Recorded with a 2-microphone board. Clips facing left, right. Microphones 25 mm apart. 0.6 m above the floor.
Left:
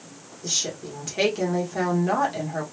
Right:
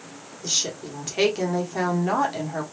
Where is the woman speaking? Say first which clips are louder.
Right 1 dB; 20° right (ahead or behind), 1.5 m.